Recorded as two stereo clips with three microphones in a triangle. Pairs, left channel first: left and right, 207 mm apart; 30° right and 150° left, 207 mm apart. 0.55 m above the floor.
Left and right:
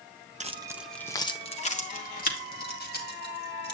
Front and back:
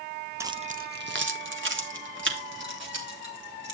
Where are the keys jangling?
135° right, 0.6 m; by 3.8 s 125° left, 2.5 m.